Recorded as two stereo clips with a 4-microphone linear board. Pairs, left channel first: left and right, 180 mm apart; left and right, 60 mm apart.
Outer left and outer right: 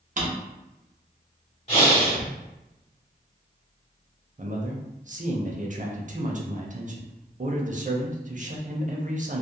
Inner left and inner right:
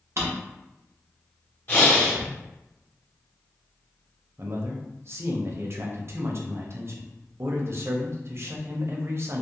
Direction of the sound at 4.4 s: 50° right (ahead or behind).